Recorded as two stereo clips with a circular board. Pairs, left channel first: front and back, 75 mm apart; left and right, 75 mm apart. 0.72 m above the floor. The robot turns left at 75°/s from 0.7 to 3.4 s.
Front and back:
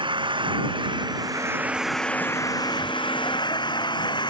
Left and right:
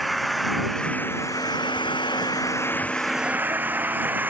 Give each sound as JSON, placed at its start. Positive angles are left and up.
{"t": 0.0, "sound": "an engine running", "azimuth_deg": 180}